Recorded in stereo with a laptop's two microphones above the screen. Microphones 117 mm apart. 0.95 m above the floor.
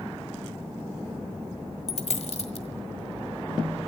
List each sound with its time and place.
1.9 s a dropped coin: 70° left (ahead or behind), 1.6 m